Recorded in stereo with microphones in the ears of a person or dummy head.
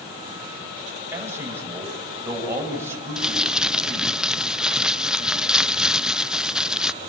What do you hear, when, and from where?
1.1 s a man speaking: 15° right (ahead or behind), 8 m
3.2 s crumpling: 5° right (ahead or behind), 0.6 m